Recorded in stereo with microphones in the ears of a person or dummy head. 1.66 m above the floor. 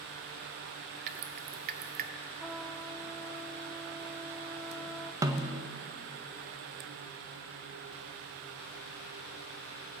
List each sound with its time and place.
1.1 s dripping: 50° right (ahead or behind), 0.9 m
2.4 s a trumpet: 5° right (ahead or behind), 0.7 m
5.2 s a snare drum: 20° right (ahead or behind), 0.8 m